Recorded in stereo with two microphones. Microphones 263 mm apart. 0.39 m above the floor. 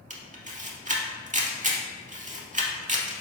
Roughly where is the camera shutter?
Right.